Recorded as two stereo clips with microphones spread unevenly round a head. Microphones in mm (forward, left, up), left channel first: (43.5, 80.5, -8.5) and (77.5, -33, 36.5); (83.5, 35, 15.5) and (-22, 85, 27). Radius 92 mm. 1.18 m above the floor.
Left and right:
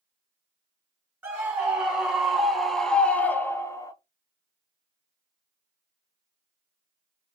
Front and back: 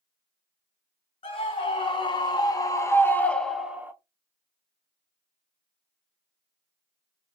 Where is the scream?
10° left, 1.6 m; by 3.9 s 80° left, 0.7 m.